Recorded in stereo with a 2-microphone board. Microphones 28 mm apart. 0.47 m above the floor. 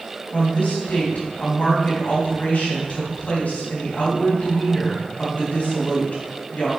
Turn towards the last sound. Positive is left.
turn(degrees=60)  # may be behind; listen again after turning